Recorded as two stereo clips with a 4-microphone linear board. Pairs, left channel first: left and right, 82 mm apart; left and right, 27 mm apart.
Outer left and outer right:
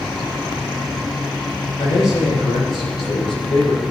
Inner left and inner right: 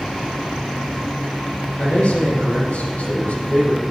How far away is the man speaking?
About 5 m.